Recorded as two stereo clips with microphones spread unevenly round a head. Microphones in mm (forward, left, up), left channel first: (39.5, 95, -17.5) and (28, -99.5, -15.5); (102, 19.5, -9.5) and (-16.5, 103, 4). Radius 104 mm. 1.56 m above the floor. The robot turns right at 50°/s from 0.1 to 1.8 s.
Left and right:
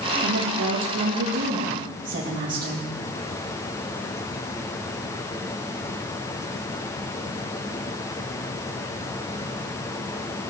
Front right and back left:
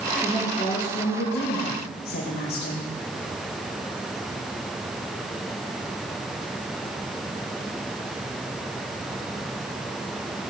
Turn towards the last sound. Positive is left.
turn(degrees=-45)